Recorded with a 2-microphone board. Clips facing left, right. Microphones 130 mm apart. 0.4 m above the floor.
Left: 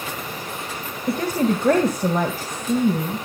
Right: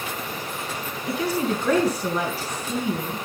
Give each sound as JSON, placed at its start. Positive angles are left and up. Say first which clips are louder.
{"t": 1.1, "sound": "a woman speaking", "louder": "left 4 dB", "side_deg": 50, "distance_m": 2.0}